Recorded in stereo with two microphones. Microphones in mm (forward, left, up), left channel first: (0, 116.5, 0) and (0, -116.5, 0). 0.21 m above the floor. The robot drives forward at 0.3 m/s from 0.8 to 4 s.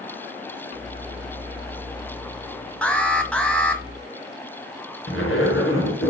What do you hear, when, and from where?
2.8 s an alarm: 5° left (ahead or behind), 1.4 m
5.1 s a zipper: 60° left (ahead or behind), 3.5 m